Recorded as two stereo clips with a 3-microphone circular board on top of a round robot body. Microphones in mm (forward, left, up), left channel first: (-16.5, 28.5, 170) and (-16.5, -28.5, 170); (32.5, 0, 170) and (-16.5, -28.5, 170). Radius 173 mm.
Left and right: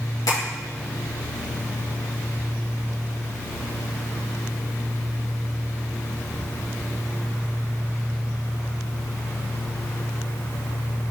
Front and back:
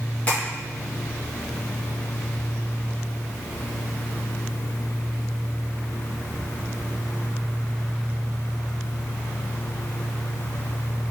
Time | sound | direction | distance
0.3 | tapping | 95° left | 1.0 m